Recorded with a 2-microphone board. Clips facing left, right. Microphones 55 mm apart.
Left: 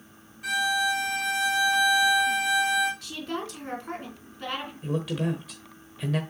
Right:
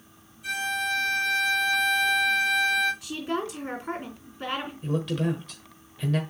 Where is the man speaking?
5° left (ahead or behind), 1.0 m.